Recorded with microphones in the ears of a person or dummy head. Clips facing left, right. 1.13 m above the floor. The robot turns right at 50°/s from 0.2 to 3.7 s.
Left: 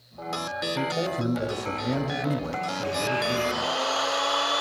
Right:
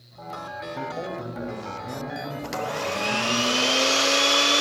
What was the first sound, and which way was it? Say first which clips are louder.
A man speaking: left 4 dB; 30° left.